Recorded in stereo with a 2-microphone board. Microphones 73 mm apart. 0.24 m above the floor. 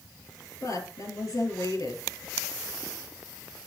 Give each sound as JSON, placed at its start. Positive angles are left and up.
{"t": 0.6, "sound": "a woman speaking", "side_deg": 50, "distance_m": 5.0}